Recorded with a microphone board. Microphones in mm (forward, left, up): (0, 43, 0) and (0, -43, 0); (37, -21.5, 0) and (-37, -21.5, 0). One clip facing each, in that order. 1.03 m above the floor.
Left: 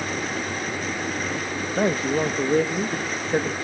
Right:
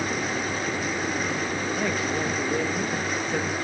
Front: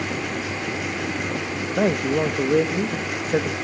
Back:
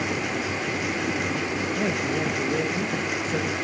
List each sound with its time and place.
1.8 s a man speaking: 35° left, 1.3 m